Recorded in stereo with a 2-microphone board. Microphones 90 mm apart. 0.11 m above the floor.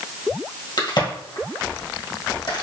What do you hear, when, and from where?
0.8 s a crack: 60° left (ahead or behind), 1.6 m